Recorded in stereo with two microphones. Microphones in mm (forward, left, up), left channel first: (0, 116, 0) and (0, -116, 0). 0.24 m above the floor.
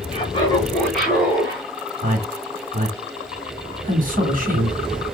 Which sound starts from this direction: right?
A man speaking, at 2.0 s.